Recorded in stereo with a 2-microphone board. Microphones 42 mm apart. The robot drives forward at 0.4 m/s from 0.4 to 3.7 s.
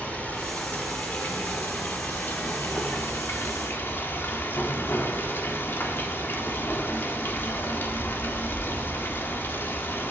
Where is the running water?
35° left (ahead or behind), 2.5 m; by 10.1 s 60° left (ahead or behind), 1.7 m.